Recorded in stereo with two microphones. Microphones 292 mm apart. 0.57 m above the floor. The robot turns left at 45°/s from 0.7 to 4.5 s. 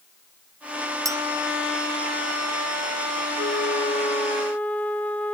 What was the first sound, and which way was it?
A clink, 10° right (ahead or behind).